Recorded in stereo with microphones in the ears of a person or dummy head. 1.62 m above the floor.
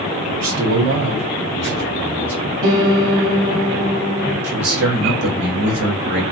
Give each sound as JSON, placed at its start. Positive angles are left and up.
{"t": 0.3, "sound": "a man speaking", "side_deg": -75, "distance_m": 1.5}
{"t": 2.6, "sound": "a piano", "side_deg": -70, "distance_m": 1.3}
{"t": 4.4, "sound": "a man speaking", "side_deg": -60, "distance_m": 1.1}